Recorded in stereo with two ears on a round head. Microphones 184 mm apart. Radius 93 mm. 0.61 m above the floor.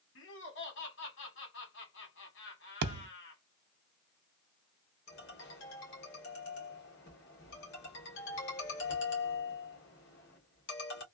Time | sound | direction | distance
0.1 | laughter | 65° left (ahead or behind) | 1.6 m
2.8 | a thud | 55° right (ahead or behind) | 0.5 m
5.1 | a ringtone | 65° left (ahead or behind) | 1.7 m